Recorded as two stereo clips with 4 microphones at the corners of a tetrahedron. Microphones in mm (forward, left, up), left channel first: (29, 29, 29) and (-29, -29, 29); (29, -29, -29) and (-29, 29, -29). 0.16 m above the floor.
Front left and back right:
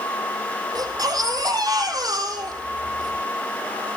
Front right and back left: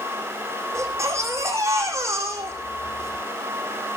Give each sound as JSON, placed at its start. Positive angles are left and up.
{"t": 0.8, "sound": "a baby crying", "azimuth_deg": -170, "distance_m": 5.0}